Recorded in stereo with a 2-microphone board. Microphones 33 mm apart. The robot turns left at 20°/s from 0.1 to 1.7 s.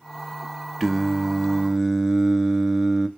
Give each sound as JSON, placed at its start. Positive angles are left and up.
{"t": 0.8, "sound": "singing", "side_deg": -5, "distance_m": 0.8}